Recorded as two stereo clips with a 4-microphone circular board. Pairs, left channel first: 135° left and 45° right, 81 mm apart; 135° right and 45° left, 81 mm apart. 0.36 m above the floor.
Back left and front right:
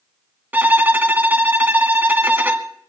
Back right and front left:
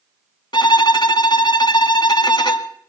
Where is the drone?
No drone in this recording.